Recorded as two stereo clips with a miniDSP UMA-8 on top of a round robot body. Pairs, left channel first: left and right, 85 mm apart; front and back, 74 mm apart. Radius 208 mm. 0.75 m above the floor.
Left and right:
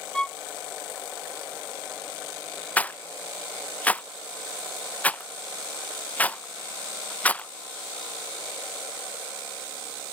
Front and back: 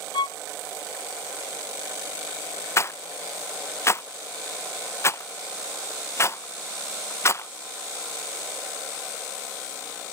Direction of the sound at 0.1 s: 10° left.